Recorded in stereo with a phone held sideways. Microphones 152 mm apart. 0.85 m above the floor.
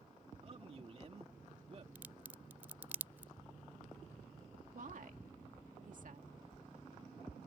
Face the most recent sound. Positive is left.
turn(degrees=-65)  # may be behind; listen again after turning